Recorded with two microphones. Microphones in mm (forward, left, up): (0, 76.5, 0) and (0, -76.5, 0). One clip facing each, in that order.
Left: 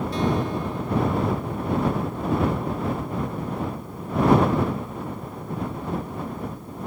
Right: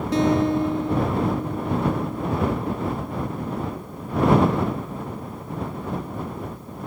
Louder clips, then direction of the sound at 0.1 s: Right 7 dB; 80° right.